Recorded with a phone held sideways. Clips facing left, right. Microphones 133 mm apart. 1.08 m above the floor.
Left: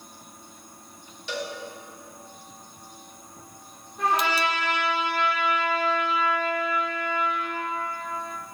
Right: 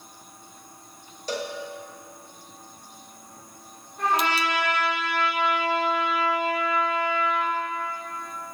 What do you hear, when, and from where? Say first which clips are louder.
1.3 s a cowbell: right 2 dB; 40° right (ahead or behind), 0.7 m
4.0 s a trumpet: even; 5° left (ahead or behind), 3 m